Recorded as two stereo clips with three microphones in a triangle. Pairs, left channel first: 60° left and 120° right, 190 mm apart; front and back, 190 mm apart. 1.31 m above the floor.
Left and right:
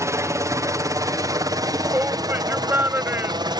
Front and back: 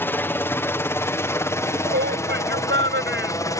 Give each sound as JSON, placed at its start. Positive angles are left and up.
{"t": 0.0, "sound": "a helicopter", "azimuth_deg": -65}
{"t": 1.6, "sound": "a shout", "azimuth_deg": 160}